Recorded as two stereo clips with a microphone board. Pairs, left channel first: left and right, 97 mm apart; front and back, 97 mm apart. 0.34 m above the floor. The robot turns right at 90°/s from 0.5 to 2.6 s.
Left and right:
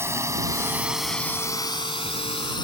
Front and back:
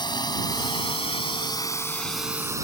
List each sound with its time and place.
0.0 s a drone: 30° right; by 2.6 s 125° left